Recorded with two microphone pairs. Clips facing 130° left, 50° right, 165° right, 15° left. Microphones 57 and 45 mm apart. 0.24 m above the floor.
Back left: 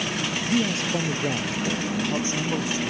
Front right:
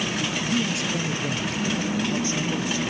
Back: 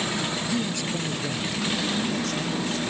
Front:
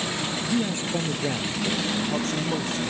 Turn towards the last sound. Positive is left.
turn(degrees=65)